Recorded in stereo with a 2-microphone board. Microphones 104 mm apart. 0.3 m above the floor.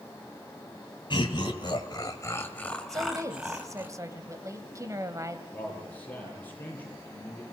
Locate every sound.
1.1 s laughter: 50° left (ahead or behind), 2 m; by 3.9 s 20° right (ahead or behind), 2.5 m
2.9 s a woman speaking: 30° right (ahead or behind), 1.9 m
5.5 s a man speaking: 15° left (ahead or behind), 9 m